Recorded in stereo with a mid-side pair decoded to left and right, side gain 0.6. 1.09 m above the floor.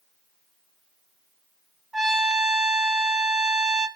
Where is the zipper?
I don't hear a zipper.